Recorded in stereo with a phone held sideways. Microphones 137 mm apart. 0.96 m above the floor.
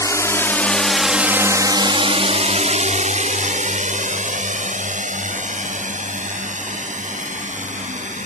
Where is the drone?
25° left (ahead or behind); by 8.3 s 70° right (ahead or behind).